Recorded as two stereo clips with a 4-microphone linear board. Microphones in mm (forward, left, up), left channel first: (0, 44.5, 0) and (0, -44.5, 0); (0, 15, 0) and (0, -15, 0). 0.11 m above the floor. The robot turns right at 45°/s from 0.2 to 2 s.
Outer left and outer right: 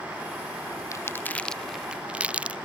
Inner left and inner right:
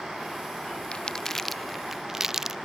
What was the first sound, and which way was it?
Crumpling, 35° left (ahead or behind).